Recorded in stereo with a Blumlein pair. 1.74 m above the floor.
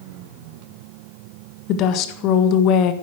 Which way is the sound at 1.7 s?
40° left.